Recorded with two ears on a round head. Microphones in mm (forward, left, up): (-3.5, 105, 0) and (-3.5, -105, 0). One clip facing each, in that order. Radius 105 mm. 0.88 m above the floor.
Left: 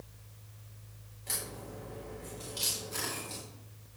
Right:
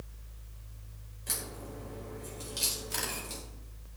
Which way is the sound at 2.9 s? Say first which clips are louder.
Even; 80° right.